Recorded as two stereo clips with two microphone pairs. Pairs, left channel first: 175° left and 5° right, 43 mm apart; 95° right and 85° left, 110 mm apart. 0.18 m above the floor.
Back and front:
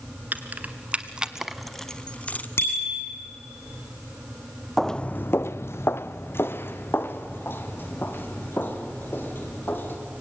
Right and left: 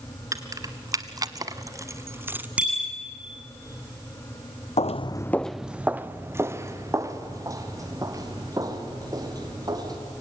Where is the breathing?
I don't hear breathing.